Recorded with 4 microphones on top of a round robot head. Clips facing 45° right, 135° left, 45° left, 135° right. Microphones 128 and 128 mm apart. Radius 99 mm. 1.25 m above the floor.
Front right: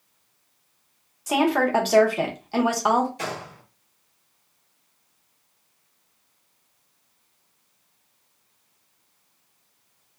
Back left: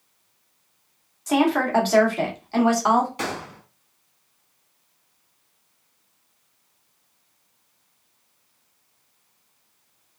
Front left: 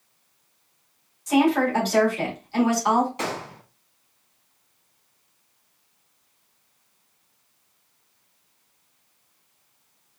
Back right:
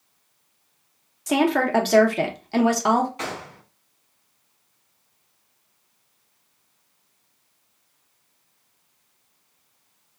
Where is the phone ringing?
I don't hear a phone ringing.